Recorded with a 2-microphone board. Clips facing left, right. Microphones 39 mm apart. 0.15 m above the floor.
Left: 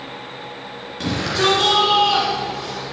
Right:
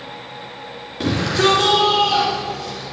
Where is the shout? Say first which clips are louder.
Right 2 dB; 10° right (ahead or behind), 2.5 m; by 2.8 s 40° left (ahead or behind), 2.5 m.